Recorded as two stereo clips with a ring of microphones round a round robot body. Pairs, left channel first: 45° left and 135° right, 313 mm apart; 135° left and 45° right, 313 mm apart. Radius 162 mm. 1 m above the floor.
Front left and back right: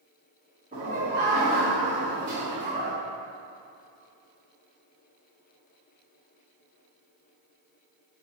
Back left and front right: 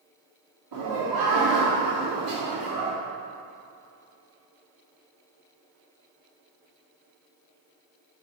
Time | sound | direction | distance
0.7 | laughter | 65° right | 1.5 m